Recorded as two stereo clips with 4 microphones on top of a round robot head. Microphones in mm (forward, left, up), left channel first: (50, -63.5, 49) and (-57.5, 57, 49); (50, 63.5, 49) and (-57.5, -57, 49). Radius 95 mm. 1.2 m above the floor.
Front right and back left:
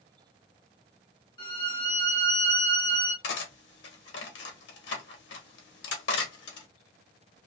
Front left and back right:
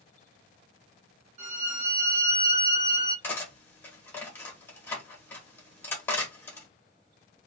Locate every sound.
1.4 s a violin: 95° right, 1.2 m
3.2 s cutlery clinking: 30° right, 0.9 m